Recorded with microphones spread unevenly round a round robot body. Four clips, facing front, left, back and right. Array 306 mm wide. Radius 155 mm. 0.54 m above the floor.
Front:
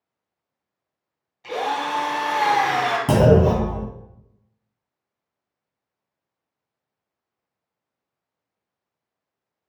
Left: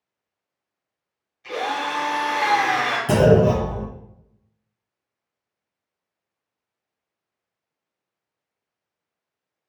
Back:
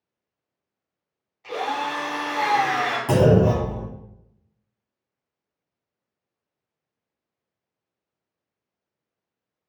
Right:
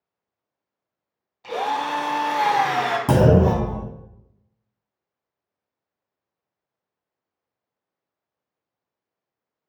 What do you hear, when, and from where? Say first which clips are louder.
1.4 s a drill: right 2 dB, front 2 dB; 50° right, 1.4 m
3.1 s a clunk: left 2 dB, front 1 dB; 55° right, 1.6 m